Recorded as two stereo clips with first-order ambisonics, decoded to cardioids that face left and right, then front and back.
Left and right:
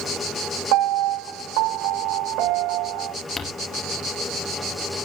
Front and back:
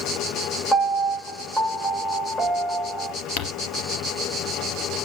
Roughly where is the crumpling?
Ahead.